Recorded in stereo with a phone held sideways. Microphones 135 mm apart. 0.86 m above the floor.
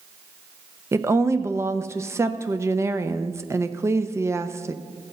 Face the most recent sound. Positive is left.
turn(degrees=-20)  # may be behind; listen again after turning